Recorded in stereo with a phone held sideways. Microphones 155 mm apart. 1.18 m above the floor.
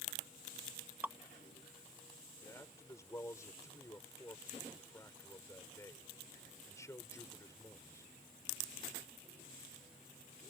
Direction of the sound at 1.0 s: 10° right (ahead or behind).